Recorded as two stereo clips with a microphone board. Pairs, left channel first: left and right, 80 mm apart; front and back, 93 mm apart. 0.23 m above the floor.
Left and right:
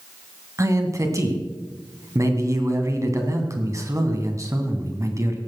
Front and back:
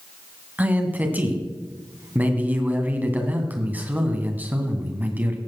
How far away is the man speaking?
About 2 m.